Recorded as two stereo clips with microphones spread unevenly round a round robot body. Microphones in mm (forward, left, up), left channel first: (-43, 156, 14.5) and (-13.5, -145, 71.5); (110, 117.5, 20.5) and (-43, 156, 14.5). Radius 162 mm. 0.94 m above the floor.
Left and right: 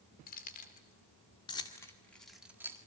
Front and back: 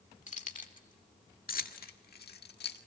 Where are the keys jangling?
30° left, 2.5 m; by 2.8 s straight ahead, 1.6 m.